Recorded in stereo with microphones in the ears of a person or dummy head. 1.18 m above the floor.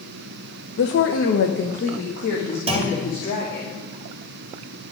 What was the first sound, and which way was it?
A woman speaking, 50° left (ahead or behind).